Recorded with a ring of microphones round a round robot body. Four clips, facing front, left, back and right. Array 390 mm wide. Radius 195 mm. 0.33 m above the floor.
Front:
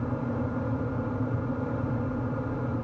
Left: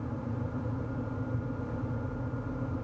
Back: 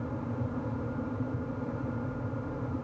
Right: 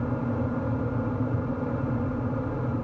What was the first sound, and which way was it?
Only background noise.